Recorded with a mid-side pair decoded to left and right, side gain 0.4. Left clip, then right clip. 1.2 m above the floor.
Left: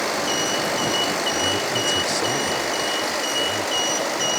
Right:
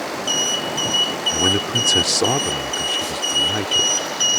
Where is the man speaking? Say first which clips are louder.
Right 3 dB; 65° right.